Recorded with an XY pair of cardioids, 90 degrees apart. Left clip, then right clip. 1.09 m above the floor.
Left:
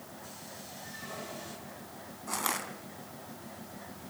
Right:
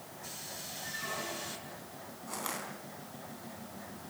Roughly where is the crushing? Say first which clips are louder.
Left 6 dB; ahead left.